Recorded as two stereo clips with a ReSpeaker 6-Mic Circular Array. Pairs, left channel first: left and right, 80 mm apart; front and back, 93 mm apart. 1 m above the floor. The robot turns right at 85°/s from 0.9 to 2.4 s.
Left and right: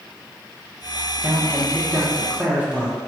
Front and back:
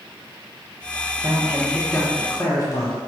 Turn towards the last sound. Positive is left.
turn(degrees=-25)